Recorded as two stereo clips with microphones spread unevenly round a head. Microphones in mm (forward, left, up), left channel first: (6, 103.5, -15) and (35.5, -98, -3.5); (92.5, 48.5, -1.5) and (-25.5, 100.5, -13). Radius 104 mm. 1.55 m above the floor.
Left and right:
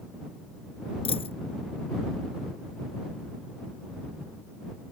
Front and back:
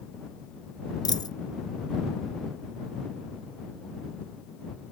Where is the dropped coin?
35° left.